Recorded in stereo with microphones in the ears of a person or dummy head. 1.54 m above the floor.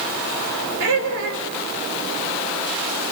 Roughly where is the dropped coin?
I don't hear a dropped coin.